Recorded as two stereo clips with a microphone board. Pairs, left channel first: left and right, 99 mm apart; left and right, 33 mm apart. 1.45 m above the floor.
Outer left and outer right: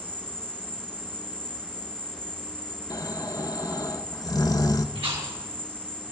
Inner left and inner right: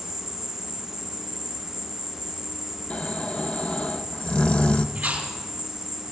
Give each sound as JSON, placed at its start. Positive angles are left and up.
{"t": 0.0, "sound": "an insect", "side_deg": -20, "distance_m": 1.1}
{"t": 2.9, "sound": "snoring", "side_deg": 35, "distance_m": 0.8}
{"t": 5.0, "sound": "chewing", "side_deg": -75, "distance_m": 6.0}